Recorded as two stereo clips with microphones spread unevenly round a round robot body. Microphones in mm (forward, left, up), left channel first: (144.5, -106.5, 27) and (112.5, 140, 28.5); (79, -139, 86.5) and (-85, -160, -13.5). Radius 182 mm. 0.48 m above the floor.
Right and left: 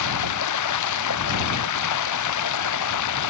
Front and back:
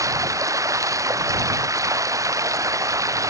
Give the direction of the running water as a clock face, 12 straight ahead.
3 o'clock.